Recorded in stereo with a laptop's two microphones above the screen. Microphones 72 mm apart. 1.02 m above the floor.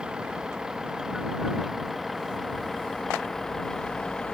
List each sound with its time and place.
0.0 s a vehicle: 10° right (ahead or behind); by 4.3 s 10° left (ahead or behind)